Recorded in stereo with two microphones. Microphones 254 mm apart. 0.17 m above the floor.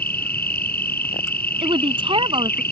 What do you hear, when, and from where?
0.0 s an insect: 40° left (ahead or behind)
1.6 s a woman speaking: 20° right (ahead or behind)